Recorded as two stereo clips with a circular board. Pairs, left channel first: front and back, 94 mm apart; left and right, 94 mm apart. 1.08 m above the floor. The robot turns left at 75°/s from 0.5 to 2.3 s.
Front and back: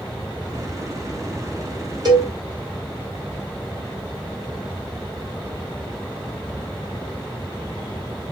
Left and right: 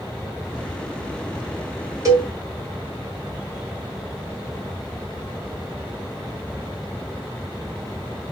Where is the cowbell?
145° right, 1.7 m; by 2.3 s 160° right, 1.7 m.